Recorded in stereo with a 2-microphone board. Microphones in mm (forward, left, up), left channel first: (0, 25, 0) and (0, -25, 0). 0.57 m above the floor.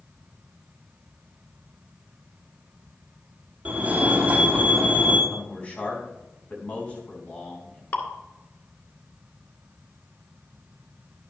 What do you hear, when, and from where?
3.6 s a fire alarm: 30° right (ahead or behind), 2.5 m
5.3 s a man speaking: 25° left (ahead or behind), 4.5 m
7.9 s dripping: 45° left (ahead or behind), 2.5 m